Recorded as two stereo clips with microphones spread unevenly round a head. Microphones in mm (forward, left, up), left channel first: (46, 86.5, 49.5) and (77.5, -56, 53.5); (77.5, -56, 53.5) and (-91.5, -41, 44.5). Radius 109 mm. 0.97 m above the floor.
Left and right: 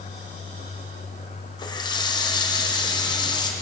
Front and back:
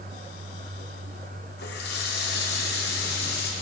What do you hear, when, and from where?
1.6 s a running tap: 40° left, 1.0 m